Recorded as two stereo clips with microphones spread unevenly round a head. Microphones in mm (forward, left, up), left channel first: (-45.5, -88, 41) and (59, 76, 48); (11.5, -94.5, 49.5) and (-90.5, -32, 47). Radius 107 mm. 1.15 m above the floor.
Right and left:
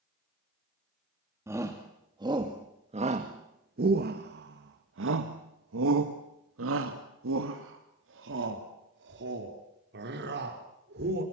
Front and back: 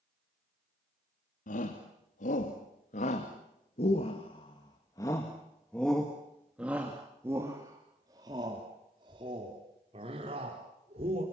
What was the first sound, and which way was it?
A shout, 20° right.